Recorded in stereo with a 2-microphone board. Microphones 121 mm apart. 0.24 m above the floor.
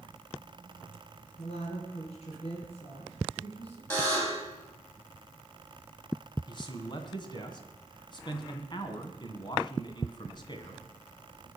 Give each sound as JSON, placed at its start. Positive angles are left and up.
{"t": 1.4, "sound": "a woman speaking", "side_deg": 60, "distance_m": 3.5}
{"t": 3.9, "sound": "a buzzer", "side_deg": 20, "distance_m": 5.0}
{"t": 6.5, "sound": "a man speaking", "side_deg": 40, "distance_m": 2.0}